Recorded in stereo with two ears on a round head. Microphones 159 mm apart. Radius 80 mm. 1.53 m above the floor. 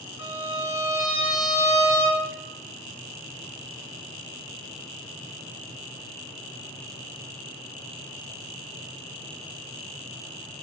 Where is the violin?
85° left, 2.5 m.